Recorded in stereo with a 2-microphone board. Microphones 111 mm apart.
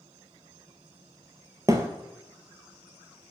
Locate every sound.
1.7 s a thud: 30° right (ahead or behind), 0.8 m